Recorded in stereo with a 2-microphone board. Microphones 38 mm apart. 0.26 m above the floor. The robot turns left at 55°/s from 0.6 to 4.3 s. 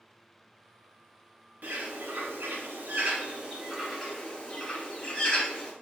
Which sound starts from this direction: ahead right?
A bird, at 1.6 s.